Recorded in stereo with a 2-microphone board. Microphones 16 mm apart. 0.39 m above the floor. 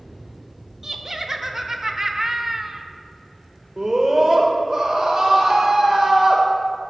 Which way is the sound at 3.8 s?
40° right (ahead or behind).